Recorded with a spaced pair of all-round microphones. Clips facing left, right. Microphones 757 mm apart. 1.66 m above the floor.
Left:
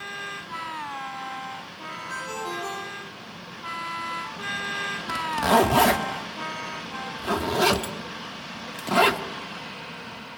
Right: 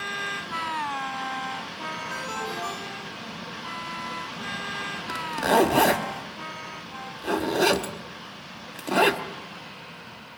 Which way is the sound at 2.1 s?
70° left (ahead or behind).